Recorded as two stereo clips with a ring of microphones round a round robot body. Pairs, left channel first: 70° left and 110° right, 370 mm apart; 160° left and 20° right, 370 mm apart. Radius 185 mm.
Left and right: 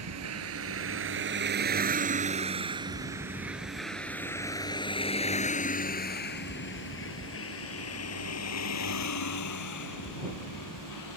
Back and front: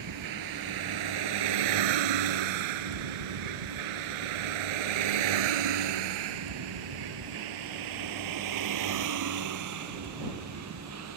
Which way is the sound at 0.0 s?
65° right.